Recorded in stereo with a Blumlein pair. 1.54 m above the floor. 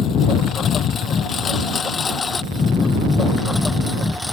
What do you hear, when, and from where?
0.0 s a lawn mower: 30° left; by 4.3 s 5° left